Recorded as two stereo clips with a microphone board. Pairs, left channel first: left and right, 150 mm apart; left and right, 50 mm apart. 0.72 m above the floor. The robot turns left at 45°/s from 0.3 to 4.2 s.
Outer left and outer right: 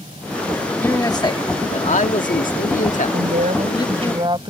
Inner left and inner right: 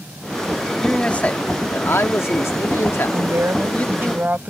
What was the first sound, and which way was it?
A man speaking, 165° left.